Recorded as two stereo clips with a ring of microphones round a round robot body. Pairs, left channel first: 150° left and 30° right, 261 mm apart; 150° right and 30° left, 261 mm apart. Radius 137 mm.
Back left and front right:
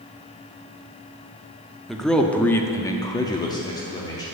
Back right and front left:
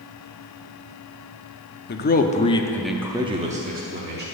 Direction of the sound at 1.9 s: 120° right.